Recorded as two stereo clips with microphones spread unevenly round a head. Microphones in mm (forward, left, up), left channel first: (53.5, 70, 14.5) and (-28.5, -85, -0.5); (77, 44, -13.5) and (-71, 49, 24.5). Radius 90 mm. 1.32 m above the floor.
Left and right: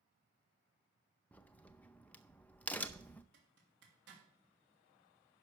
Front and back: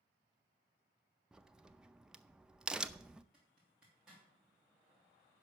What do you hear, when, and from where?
1.3 s a crack: 125° left, 0.5 m
3.3 s a zipper: 95° right, 3 m